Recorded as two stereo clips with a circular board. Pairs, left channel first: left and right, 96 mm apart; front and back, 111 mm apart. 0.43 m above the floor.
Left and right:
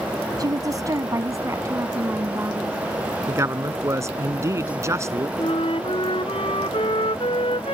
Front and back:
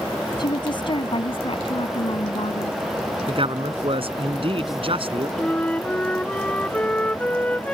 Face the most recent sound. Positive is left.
turn(degrees=80)